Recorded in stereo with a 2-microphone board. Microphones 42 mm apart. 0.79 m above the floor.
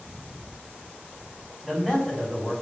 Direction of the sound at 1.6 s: 10° right (ahead or behind).